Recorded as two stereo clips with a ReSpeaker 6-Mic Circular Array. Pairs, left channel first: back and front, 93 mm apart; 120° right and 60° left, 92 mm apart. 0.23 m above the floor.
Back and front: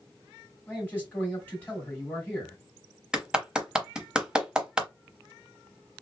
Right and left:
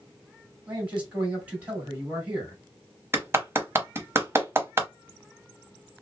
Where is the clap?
70° left, 0.8 m.